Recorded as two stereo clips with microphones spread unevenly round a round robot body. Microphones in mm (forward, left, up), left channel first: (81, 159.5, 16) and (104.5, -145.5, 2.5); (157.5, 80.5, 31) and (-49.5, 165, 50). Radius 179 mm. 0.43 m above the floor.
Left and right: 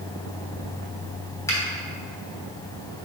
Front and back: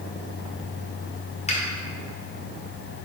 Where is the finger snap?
15° left, 1.3 m.